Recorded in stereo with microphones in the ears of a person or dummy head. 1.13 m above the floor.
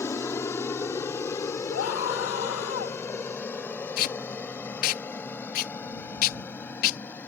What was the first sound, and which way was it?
An aircraft, 5° left (ahead or behind).